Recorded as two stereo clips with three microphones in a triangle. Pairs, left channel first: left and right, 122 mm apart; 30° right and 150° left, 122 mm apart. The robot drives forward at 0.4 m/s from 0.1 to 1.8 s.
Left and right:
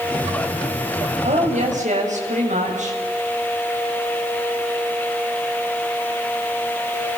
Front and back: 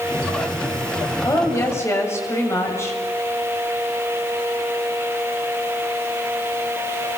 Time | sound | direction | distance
1.2 | a woman speaking | 95° right | 7 m